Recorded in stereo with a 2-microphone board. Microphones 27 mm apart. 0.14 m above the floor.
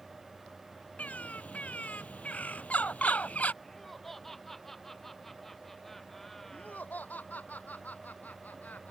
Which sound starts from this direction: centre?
Laughter, at 3.6 s.